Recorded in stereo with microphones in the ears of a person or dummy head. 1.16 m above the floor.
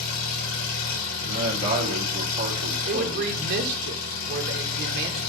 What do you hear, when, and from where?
0.0 s an engine running: 60° left (ahead or behind), 3.5 m
1.3 s a man speaking: 40° right (ahead or behind), 1.6 m
2.9 s a woman speaking: 60° right (ahead or behind), 0.8 m